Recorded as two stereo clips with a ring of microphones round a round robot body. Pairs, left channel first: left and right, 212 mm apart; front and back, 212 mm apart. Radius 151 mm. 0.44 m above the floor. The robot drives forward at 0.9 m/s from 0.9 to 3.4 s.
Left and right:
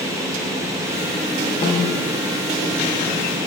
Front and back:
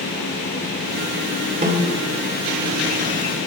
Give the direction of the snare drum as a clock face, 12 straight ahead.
7 o'clock.